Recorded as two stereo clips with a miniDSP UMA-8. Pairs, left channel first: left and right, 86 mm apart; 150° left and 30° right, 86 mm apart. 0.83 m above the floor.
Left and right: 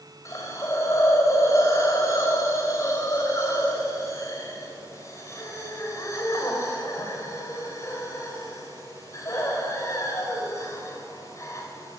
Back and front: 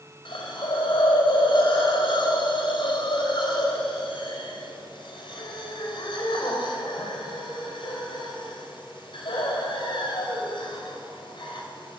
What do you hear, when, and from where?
0.2 s a hiss: 140° left, 4 m